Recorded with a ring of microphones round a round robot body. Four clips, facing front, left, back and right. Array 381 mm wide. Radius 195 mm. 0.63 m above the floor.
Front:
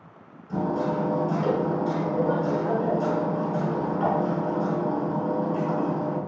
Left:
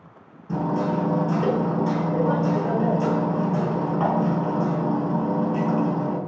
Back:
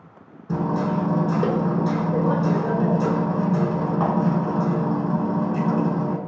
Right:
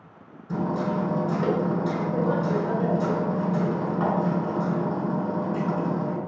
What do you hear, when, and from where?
0.5 s hammering: 160° left, 5 m